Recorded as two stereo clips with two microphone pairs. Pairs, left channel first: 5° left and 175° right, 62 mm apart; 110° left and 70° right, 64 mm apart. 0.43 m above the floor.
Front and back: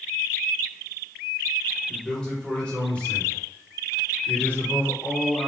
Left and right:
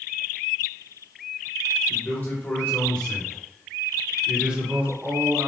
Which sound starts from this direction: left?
A man speaking, at 1.9 s.